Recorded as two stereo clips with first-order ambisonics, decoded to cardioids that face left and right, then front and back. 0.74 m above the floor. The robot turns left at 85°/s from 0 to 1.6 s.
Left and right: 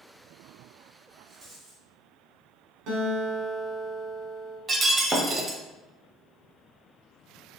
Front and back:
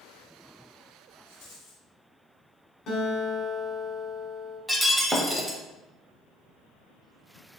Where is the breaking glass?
105° right, 0.5 m.